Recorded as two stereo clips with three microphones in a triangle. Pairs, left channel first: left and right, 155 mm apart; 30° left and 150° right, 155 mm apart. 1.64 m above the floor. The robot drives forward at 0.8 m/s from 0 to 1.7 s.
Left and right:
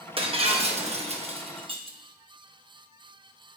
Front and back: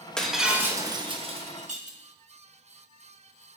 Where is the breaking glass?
55° right, 1.2 m; by 2.0 s 135° right, 1.3 m.